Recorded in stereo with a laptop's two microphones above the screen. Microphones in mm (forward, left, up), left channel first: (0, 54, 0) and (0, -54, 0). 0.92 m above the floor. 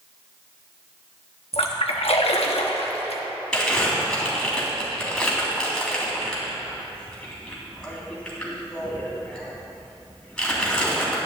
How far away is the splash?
About 1.0 m.